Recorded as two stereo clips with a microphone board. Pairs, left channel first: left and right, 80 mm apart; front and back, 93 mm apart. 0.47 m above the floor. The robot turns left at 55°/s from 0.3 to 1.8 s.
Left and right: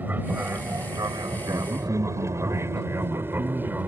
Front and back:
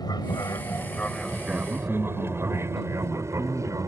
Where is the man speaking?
70° right; by 3.9 s 85° right.